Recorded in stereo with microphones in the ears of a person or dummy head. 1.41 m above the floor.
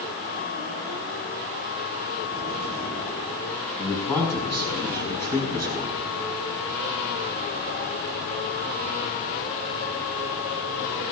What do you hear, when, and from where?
3.8 s a man speaking: 20° left (ahead or behind), 5.5 m